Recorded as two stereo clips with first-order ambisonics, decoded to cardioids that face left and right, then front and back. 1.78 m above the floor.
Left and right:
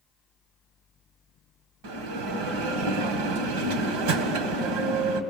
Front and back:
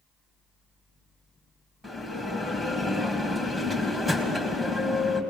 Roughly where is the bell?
Right.